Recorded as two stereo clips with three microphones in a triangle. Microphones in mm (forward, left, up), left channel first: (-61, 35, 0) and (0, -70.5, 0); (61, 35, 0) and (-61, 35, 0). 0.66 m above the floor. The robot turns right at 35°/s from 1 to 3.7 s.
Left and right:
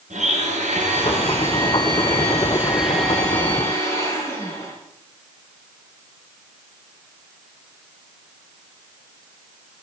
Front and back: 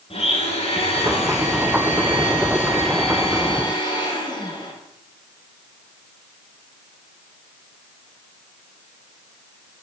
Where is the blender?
40° right, 4.5 m; by 4.7 s 55° left, 4.5 m.